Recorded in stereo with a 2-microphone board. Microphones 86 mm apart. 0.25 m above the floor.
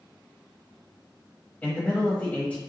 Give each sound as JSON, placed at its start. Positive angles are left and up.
{"t": 1.6, "sound": "a man speaking", "side_deg": 20, "distance_m": 1.0}